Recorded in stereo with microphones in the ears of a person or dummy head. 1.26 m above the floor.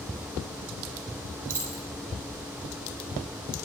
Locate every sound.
1.5 s keys jangling: 10° right (ahead or behind), 4.5 m